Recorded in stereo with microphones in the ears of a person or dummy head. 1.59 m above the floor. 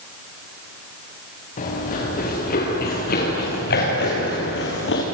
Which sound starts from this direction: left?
Running footsteps, at 1.6 s.